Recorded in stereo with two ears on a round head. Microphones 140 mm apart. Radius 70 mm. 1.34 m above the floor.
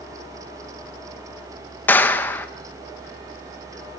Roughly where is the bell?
I don't hear a bell.